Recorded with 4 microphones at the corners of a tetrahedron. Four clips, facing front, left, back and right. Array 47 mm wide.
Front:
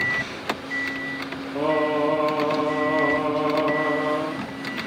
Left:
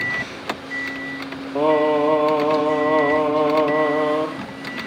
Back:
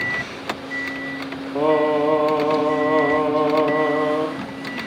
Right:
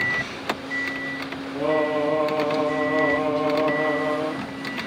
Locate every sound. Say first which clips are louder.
1.6 s singing: left 5 dB, back 4 dB; 110° left, 3 m